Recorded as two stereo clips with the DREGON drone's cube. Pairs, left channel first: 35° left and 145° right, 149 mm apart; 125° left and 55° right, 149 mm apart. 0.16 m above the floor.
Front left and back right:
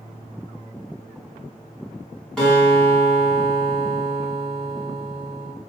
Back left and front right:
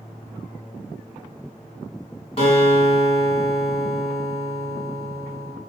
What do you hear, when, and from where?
2.4 s a guitar: 120° left, 1.3 m